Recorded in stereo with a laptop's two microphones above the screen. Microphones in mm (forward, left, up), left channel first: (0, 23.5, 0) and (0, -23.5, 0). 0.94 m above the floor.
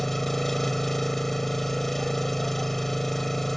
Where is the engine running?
5° left (ahead or behind).